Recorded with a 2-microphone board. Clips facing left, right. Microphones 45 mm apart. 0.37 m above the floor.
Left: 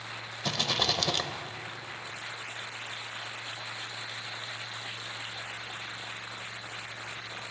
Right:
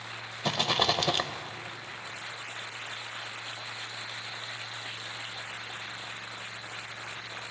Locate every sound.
0.4 s a rattle: 25° right (ahead or behind), 0.6 m